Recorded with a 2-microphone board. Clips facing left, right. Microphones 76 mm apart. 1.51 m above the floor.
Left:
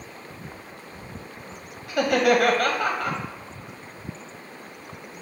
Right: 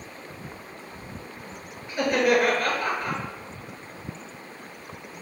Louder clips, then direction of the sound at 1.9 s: Left 2 dB; 70° left (ahead or behind).